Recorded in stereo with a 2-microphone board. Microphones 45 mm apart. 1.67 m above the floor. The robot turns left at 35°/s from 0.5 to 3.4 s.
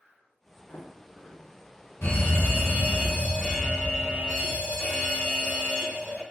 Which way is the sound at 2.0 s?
75° left.